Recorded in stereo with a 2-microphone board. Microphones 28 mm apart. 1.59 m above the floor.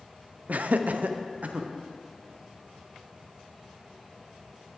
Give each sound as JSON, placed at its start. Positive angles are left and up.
{"t": 0.5, "sound": "laughter", "side_deg": -70, "distance_m": 0.6}